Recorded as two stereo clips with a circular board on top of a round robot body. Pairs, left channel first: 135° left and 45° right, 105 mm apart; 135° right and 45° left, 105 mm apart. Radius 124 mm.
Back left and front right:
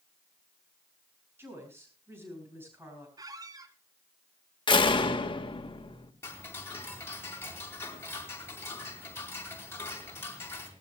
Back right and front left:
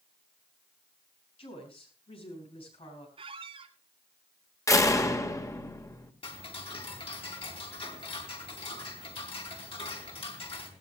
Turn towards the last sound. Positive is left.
turn(degrees=-160)